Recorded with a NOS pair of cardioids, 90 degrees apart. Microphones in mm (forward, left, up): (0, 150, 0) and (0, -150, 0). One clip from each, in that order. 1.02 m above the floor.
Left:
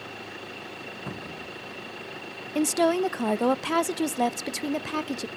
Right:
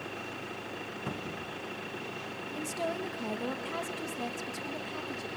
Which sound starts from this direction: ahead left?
A woman speaking, at 2.5 s.